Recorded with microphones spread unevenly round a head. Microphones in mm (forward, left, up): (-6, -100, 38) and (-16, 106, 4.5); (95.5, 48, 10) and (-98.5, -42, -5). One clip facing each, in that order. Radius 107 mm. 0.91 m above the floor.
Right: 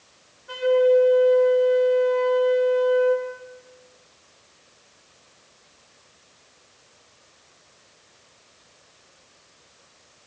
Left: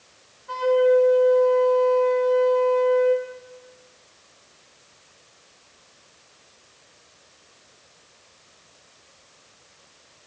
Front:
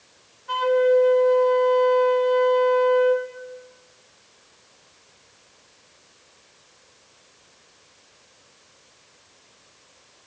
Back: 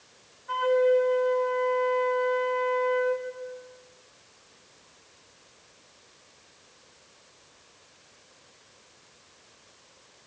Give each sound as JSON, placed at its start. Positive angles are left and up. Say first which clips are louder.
{"t": 0.5, "sound": "a flute", "louder": "even, front 4 dB", "azimuth_deg": -10, "distance_m": 3.5}